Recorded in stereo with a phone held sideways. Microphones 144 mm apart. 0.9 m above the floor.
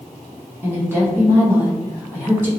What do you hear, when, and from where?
0.6 s a woman speaking: 15° right (ahead or behind), 0.8 m